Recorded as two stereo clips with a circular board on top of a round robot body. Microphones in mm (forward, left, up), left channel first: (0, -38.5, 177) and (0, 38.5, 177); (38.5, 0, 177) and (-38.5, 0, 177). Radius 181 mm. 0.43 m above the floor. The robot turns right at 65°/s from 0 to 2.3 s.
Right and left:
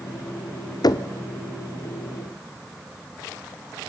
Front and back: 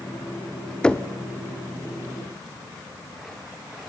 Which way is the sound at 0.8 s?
75° right.